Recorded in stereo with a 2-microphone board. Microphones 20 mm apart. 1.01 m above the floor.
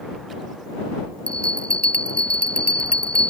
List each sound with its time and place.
1.3 s a bell: 75° left (ahead or behind)